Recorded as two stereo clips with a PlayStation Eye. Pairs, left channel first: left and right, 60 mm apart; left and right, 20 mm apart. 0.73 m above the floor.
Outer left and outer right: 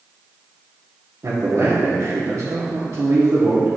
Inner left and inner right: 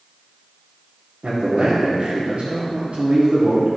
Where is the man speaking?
65° right (ahead or behind), 1.6 m.